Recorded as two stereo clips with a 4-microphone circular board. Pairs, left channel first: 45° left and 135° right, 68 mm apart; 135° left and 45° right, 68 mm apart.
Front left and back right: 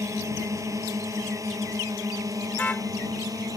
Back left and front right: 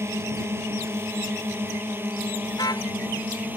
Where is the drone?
95° right; by 3.6 s 110° right.